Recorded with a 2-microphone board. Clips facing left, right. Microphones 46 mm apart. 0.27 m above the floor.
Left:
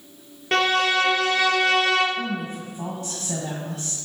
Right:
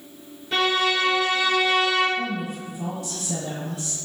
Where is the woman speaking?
40° left (ahead or behind), 1.2 m.